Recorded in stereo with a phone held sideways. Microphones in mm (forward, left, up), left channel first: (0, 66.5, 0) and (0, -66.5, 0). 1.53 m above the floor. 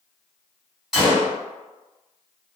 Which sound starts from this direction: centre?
A gunshot, at 0.9 s.